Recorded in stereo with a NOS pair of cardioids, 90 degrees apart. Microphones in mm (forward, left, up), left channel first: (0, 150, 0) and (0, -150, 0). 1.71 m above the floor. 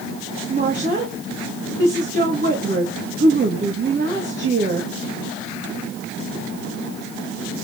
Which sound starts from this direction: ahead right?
A woman speaking, at 0.5 s.